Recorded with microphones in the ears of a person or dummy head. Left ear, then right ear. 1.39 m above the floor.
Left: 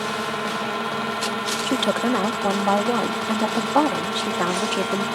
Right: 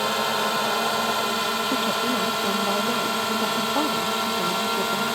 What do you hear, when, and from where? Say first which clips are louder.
0.0 s a drone: right 3 dB; 25° right (ahead or behind)
1.7 s a woman speaking: left 2 dB; 50° left (ahead or behind)